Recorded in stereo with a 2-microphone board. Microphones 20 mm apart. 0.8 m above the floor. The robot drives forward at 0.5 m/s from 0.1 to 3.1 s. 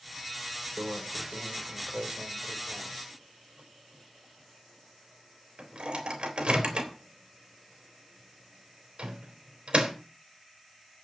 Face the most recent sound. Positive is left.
turn(degrees=-65)  # may be behind; listen again after turning